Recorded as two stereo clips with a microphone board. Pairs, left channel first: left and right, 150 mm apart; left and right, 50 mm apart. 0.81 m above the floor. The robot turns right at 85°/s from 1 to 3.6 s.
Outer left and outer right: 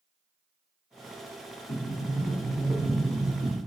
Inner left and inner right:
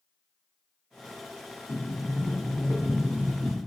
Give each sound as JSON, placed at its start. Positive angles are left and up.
{"t": 1.7, "sound": "a sliding door", "azimuth_deg": 90, "distance_m": 0.9}